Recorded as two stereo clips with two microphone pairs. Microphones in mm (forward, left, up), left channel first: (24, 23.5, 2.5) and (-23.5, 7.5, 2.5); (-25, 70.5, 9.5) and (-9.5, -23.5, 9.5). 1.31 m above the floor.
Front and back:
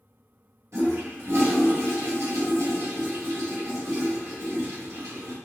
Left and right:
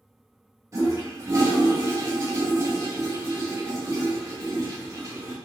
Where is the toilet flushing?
140° right, 0.8 m.